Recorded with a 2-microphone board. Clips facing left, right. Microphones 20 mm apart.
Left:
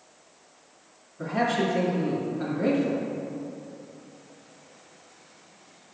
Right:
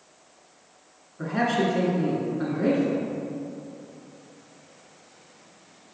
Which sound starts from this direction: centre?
A man speaking, at 1.2 s.